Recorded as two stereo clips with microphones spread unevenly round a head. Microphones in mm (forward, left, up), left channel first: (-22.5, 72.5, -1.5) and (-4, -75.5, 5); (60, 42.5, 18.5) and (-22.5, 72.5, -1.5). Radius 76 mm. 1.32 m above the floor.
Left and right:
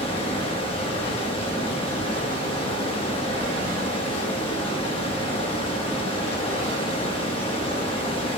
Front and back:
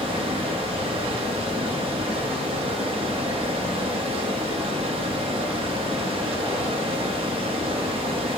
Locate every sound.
0.0 s running water: 150° left, 1.3 m